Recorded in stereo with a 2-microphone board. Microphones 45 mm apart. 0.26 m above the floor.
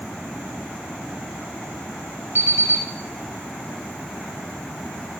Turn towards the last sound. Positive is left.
turn(degrees=-75)  # may be behind; listen again after turning